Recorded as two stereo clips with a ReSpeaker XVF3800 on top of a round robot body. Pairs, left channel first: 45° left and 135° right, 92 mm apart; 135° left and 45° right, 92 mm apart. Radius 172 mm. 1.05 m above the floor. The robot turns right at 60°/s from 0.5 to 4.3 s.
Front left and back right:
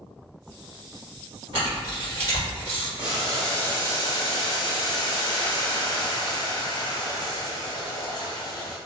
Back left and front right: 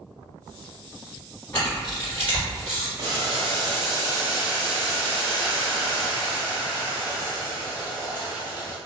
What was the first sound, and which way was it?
A camera shutter, 160° right.